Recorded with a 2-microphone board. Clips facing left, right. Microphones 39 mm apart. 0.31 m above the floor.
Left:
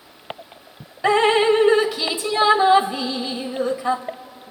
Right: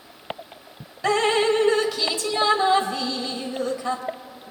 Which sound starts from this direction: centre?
Dripping, at 1.0 s.